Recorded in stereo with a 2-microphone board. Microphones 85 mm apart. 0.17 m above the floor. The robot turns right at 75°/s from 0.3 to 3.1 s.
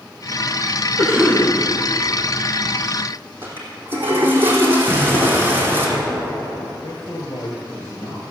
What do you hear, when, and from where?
1.0 s a cough: 5° right, 6 m; by 1.5 s 35° left, 6 m
3.4 s a toilet flushing: 25° right (ahead or behind), 3 m
4.9 s an explosion: 5° left (ahead or behind), 2.5 m
6.8 s a man speaking: 55° left (ahead or behind), 2.5 m